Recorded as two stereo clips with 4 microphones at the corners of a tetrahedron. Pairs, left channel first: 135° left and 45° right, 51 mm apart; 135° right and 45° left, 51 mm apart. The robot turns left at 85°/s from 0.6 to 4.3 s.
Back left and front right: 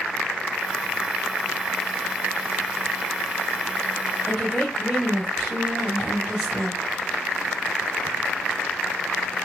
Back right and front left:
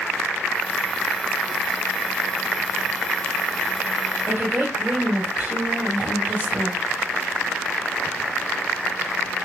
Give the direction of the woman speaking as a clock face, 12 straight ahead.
11 o'clock.